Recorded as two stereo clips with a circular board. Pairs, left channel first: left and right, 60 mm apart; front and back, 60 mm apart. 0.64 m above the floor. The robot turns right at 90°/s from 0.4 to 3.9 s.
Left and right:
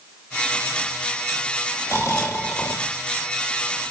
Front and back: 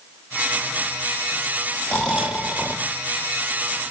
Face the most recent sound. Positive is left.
turn(degrees=-115)